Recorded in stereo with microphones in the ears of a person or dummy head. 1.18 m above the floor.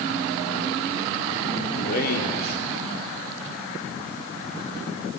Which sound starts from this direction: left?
A man speaking, at 1.8 s.